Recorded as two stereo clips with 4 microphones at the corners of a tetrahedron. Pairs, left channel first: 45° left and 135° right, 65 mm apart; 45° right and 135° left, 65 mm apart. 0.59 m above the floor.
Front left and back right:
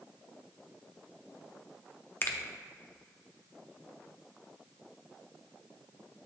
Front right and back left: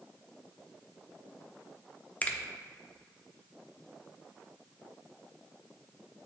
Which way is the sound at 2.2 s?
5° left.